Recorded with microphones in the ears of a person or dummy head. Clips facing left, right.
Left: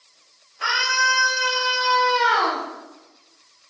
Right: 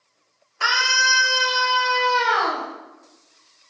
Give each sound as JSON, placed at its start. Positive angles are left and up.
{"t": 0.6, "sound": "a scream", "side_deg": -70, "distance_m": 1.3}